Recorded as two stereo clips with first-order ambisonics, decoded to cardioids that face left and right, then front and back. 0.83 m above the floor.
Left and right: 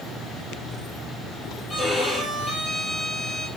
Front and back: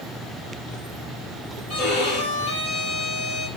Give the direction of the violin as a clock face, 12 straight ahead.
12 o'clock.